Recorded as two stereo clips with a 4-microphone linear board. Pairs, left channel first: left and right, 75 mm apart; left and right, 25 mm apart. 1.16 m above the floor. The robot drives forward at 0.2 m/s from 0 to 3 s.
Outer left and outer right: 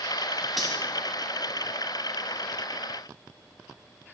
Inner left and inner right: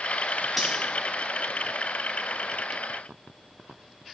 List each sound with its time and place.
0.6 s cutlery clinking: centre (ahead or behind), 2.0 m